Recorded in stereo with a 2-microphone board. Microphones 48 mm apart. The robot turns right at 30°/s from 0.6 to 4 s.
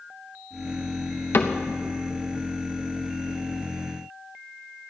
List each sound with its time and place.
1.3 s a cupboard door: 55° left (ahead or behind), 0.7 m; by 1.6 s 60° left (ahead or behind), 0.7 m